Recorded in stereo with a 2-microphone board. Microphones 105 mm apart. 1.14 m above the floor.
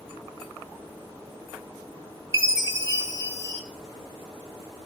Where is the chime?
25° right (ahead or behind), 1.3 m.